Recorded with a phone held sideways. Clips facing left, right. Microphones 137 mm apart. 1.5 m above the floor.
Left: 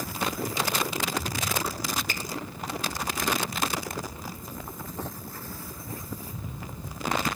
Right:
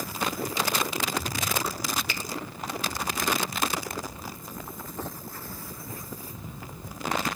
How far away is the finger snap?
About 1.5 m.